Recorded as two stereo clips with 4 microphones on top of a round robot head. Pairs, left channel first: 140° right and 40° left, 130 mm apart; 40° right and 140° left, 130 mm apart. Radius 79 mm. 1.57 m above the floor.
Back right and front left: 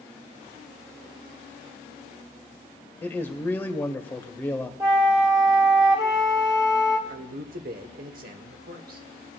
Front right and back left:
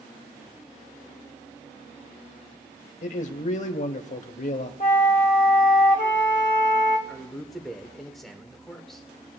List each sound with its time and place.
3.0 s a man speaking: 70° right, 1.1 m
4.8 s a flute: 20° right, 1.1 m
7.1 s a man speaking: 50° left, 1.2 m